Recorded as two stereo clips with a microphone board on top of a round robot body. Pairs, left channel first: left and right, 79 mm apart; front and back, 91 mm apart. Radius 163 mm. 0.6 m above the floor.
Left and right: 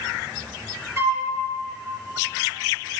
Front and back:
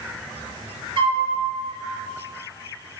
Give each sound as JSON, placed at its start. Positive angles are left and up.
{"t": 1.0, "sound": "a flute", "azimuth_deg": -155, "distance_m": 3.0}